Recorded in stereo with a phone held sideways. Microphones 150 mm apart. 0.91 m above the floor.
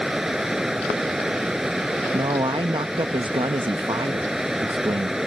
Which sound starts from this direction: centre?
Running water, at 0.0 s.